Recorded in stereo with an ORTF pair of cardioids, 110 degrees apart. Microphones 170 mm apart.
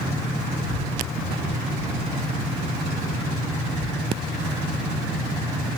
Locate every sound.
0.6 s a child speaking: 60° left